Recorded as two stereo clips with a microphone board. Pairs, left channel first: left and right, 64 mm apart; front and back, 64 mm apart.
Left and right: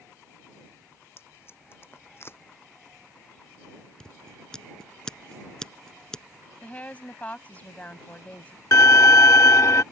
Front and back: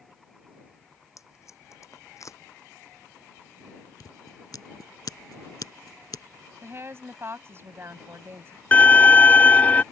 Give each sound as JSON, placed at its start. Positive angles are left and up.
{"t": 1.2, "sound": "tape being pulled", "azimuth_deg": 40}
{"t": 4.0, "sound": "scissors", "azimuth_deg": 10}
{"t": 6.6, "sound": "a woman speaking", "azimuth_deg": 150}
{"t": 8.7, "sound": "a violin", "azimuth_deg": 65}